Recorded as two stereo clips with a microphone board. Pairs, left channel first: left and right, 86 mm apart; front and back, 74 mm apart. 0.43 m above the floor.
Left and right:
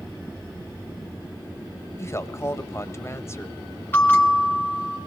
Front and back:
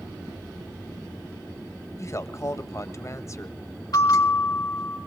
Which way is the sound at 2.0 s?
35° left.